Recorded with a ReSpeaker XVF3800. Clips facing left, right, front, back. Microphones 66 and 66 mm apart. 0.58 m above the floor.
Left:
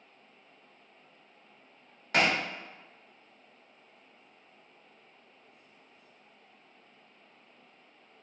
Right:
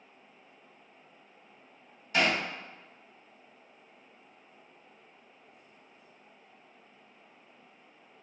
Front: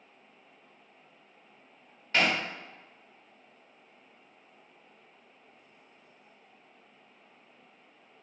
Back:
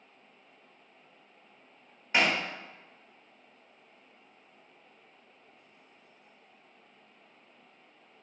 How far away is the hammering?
About 1.3 m.